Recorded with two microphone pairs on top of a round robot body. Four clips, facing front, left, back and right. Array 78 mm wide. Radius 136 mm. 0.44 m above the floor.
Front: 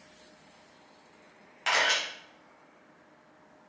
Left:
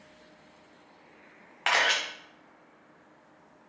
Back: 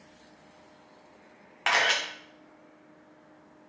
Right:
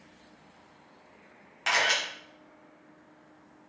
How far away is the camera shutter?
About 1.3 m.